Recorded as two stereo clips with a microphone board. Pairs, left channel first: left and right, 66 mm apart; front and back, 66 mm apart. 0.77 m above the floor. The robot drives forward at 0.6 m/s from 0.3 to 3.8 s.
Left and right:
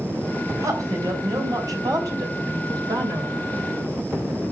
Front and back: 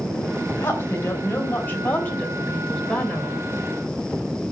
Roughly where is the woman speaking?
Ahead right.